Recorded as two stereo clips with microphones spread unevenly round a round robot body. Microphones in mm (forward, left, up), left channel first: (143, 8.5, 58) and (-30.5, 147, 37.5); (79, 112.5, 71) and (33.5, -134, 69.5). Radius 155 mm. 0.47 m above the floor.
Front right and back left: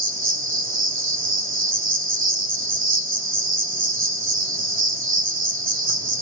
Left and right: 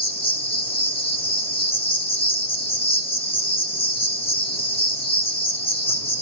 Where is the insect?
145° left, 1.4 m.